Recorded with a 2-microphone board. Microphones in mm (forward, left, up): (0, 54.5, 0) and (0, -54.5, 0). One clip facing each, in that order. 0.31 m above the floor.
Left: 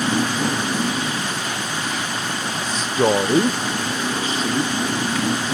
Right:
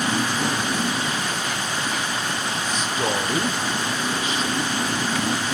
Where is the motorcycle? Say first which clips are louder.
Left 3 dB; 15° left (ahead or behind).